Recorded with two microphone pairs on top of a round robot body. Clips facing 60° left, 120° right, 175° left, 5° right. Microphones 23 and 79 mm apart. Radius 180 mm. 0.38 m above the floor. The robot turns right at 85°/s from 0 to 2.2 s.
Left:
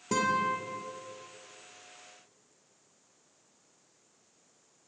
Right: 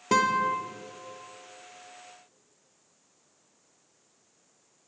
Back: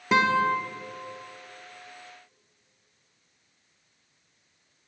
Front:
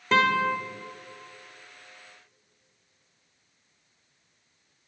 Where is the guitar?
110° right, 1.4 m; by 0.6 s 75° right, 1.4 m.